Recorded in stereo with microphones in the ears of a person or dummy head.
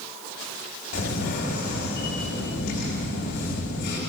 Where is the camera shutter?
55° left (ahead or behind), 3 m.